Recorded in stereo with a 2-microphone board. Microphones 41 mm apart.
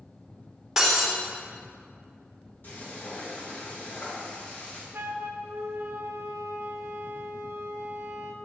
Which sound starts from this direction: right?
A flute, at 4.9 s.